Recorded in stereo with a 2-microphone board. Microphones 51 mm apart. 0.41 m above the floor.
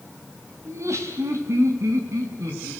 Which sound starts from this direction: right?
Laughter, at 0.7 s.